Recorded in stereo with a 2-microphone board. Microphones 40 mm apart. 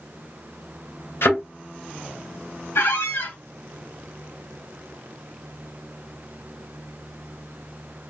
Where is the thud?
75° left (ahead or behind), 2 m.